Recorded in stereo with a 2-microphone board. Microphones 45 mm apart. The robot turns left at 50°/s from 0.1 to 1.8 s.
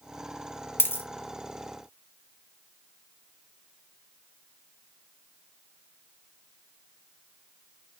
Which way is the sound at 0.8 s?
50° left (ahead or behind).